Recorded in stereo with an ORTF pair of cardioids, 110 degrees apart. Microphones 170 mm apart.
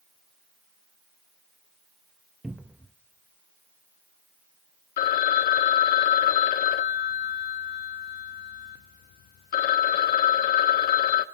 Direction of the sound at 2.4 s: 5° right.